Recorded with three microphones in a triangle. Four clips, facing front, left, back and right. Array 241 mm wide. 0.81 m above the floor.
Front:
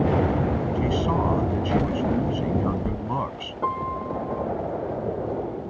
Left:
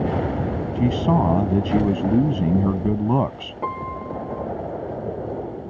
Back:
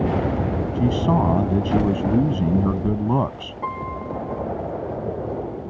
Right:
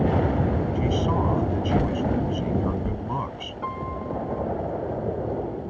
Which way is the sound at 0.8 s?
125° left.